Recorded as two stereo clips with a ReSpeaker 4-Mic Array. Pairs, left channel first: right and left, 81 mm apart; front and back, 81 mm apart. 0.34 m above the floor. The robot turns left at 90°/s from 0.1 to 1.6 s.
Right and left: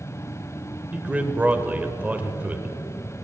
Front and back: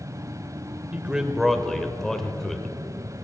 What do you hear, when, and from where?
0.9 s a man speaking: 140° left, 0.8 m; by 2.7 s 80° left, 0.8 m